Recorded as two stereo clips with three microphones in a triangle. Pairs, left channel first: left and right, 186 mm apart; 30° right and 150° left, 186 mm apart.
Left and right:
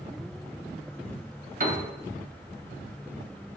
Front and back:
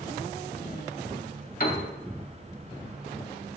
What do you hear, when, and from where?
1.6 s a piano: 60° right, 0.6 m